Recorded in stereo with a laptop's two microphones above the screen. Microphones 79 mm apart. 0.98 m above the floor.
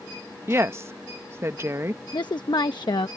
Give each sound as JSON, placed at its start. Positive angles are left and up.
{"t": 0.5, "sound": "a woman speaking", "side_deg": -35}
{"t": 2.1, "sound": "a woman speaking", "side_deg": 70}